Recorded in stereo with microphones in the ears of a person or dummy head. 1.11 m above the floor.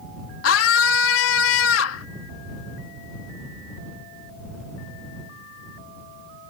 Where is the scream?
75° left (ahead or behind).